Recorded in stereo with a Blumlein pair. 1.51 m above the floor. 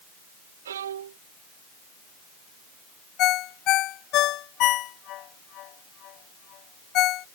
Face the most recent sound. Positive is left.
turn(degrees=35)